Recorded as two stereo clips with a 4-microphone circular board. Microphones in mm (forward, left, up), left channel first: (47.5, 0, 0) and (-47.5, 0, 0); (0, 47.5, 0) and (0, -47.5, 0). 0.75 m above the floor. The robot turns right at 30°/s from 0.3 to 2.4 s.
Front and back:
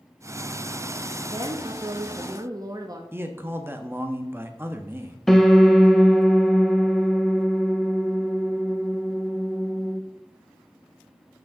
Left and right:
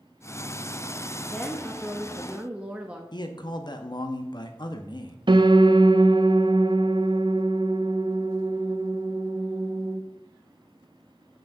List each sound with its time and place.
1.3 s a woman speaking: 165° left, 0.7 m; by 3.0 s 160° right, 0.7 m
3.1 s a man speaking: 120° left, 0.8 m
5.3 s a piano: 90° right, 0.5 m